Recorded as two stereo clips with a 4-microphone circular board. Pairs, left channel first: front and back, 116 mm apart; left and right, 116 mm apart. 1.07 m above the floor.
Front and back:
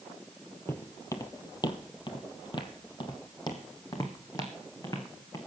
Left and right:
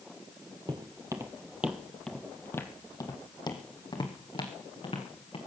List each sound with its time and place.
0.7 s footsteps: 60° right, 1.5 m; by 5.4 s 60° left, 3.5 m